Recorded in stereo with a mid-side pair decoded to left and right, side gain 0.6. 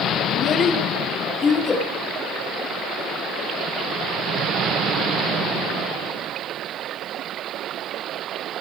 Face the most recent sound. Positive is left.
turn(degrees=20)